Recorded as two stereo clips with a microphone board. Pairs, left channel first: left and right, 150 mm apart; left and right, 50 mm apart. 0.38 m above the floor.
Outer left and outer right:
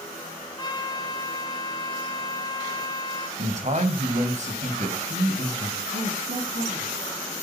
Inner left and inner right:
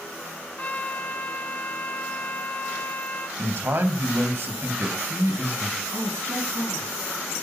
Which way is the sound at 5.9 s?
75° right (ahead or behind).